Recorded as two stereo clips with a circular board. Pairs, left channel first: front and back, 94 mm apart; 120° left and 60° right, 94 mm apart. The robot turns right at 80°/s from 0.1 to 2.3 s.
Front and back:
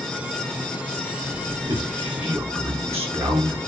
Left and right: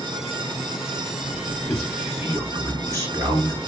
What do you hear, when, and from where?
1.7 s a man speaking: 170° right, 7.5 m; by 3.6 s 120° right, 7.5 m